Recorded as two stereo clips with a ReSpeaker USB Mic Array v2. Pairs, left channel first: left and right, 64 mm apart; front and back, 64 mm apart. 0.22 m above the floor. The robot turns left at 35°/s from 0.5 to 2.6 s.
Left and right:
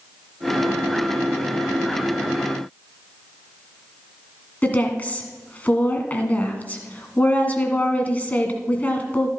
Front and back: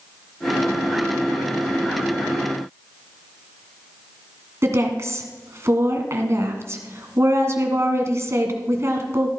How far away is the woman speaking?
About 1.8 m.